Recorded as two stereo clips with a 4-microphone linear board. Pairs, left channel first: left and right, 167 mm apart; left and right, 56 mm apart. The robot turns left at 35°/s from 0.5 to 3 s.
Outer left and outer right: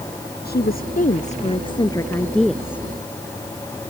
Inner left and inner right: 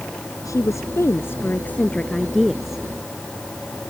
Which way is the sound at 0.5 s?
70° left.